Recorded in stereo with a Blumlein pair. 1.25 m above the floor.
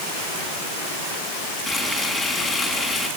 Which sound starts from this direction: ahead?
Frying, at 1.7 s.